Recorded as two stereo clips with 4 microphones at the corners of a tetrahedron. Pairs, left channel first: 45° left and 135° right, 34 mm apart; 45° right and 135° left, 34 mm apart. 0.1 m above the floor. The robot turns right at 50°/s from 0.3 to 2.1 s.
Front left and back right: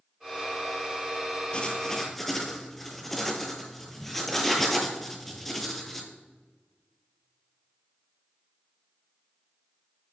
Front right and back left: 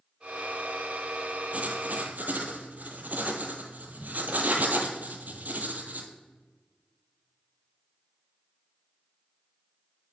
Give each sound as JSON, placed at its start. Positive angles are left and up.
{"t": 1.5, "sound": "writing", "azimuth_deg": 100, "distance_m": 1.0}